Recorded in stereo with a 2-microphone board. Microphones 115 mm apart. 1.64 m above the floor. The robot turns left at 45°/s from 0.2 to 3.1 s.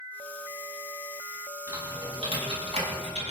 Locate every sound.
1.7 s typing on a keyboard: 25° right (ahead or behind), 6.5 m; by 3.3 s 80° right, 6.5 m